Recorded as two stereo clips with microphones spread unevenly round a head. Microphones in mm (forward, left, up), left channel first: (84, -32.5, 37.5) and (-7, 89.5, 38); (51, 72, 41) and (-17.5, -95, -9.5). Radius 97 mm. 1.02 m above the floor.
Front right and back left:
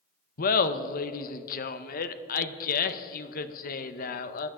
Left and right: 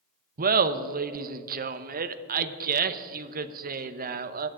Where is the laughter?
85° right, 0.8 m.